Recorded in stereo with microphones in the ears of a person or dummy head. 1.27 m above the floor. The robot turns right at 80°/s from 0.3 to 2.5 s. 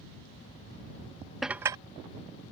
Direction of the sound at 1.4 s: Centre (ahead or behind).